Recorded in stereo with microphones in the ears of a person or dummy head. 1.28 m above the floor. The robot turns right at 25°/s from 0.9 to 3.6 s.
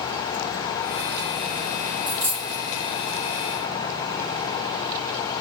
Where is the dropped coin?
40° right (ahead or behind), 1.7 m; by 2.6 s 50° right (ahead or behind), 1.7 m.